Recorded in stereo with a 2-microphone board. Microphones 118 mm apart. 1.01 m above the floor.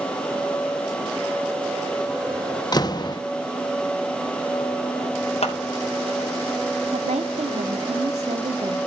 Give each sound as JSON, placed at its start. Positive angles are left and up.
{"t": 2.7, "sound": "a door slam", "side_deg": 35, "distance_m": 1.0}
{"t": 5.4, "sound": "scissors", "side_deg": 75, "distance_m": 4.5}
{"t": 6.9, "sound": "a woman speaking", "side_deg": -75, "distance_m": 2.5}